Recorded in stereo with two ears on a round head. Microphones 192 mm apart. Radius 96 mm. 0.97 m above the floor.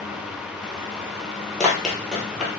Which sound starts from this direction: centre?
Running footsteps, at 1.6 s.